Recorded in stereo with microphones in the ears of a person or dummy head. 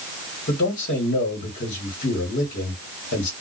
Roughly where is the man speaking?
Left.